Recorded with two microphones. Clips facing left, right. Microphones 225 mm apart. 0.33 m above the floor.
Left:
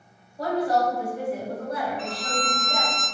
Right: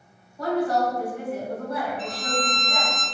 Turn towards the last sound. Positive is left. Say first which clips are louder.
# right 2 dB
turn(degrees=0)  # may be behind; listen again after turning